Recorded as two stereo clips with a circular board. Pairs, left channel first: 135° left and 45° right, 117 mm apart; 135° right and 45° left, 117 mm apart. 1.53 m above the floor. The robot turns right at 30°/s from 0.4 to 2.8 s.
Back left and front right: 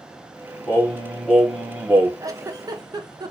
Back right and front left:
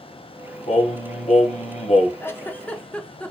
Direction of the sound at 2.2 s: 80° right.